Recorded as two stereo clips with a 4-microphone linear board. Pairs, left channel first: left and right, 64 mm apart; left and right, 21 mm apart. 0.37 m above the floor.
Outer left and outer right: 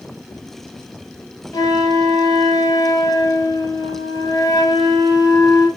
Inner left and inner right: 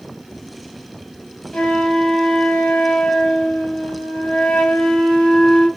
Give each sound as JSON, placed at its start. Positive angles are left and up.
{"t": 1.5, "sound": "a flute", "side_deg": 80, "distance_m": 1.1}